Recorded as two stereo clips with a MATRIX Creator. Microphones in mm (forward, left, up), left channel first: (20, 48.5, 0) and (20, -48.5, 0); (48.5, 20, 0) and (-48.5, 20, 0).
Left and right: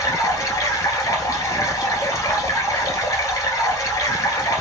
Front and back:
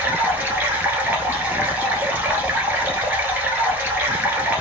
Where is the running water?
120° left, 1.2 m.